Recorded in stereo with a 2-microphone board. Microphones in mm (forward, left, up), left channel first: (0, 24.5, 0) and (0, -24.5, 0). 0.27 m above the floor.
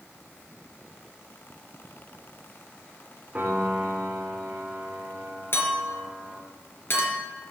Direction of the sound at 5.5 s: 50° left (ahead or behind).